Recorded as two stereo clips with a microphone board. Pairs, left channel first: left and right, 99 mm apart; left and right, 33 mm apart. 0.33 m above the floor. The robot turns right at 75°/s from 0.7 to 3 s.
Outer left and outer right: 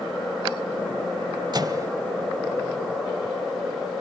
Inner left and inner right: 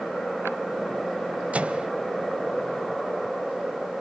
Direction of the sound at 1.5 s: 45° right (ahead or behind).